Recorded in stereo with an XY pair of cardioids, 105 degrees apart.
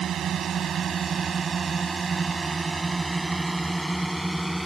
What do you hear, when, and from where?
0.0 s a drone: 55° right; by 4.7 s straight ahead